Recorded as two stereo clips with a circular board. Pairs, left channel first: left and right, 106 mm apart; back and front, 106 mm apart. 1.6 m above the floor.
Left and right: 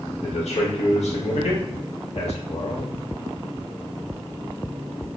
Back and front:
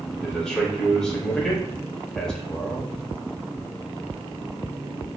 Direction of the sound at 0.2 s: 95° left.